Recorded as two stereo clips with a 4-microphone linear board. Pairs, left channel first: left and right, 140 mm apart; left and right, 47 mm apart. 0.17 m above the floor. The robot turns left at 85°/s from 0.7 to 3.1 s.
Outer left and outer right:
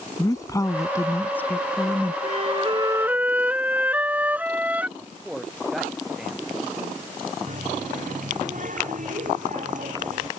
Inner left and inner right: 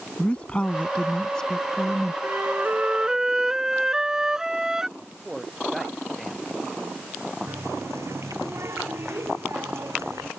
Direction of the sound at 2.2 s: 90° right.